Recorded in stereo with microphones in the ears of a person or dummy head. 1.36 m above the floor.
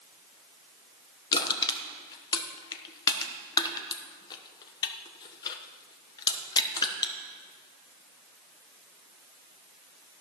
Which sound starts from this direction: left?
Crushing, at 1.3 s.